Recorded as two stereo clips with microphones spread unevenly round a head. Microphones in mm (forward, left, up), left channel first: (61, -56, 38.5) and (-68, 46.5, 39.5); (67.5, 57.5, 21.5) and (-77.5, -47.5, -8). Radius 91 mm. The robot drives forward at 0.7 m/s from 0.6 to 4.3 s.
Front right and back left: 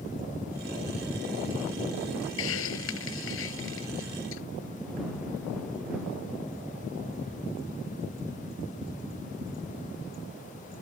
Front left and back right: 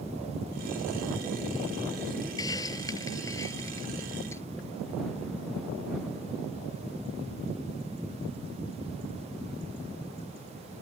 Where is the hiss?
35° right; by 4.4 s 40° right.